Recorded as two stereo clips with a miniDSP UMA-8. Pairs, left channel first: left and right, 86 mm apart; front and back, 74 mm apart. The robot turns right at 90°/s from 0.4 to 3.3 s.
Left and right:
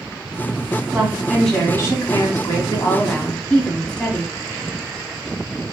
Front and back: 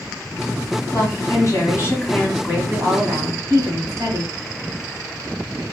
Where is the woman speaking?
45° right, 1.9 m; by 4.3 s 170° left, 1.9 m.